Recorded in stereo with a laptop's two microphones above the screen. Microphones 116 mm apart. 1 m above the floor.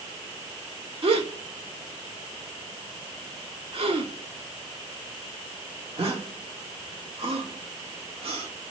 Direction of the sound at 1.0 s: 55° right (ahead or behind).